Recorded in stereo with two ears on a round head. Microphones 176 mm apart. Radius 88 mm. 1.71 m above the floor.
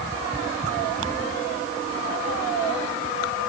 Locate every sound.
Only background noise.